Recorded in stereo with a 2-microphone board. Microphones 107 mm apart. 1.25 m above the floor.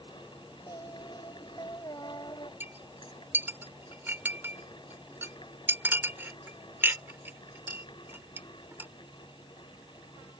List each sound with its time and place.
0.7 s singing: 40° left (ahead or behind)
2.6 s a clink: 20° right (ahead or behind)